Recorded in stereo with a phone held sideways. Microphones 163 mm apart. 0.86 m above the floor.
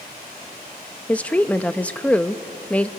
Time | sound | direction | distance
1.1 | a woman speaking | 10° left (ahead or behind) | 0.6 m